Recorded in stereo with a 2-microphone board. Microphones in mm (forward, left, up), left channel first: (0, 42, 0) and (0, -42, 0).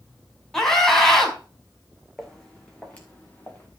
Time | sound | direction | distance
0.5 | a scream | 5° left (ahead or behind) | 4.5 m
2.2 | footsteps | 5° left (ahead or behind) | 2.5 m